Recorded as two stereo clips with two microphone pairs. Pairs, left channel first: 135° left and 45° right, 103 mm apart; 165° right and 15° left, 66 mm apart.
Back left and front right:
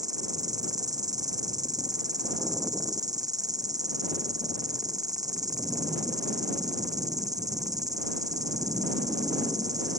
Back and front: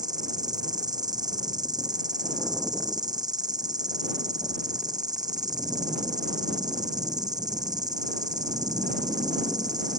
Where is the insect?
5° left.